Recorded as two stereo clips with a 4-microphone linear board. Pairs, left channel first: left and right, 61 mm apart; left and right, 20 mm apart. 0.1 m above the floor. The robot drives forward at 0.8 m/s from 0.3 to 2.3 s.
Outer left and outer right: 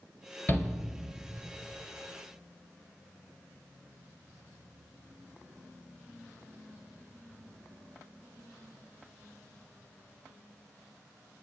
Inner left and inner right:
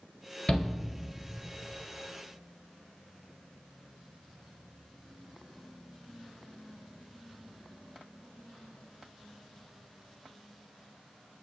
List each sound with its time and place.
0.5 s a shout: 30° left (ahead or behind), 1.5 m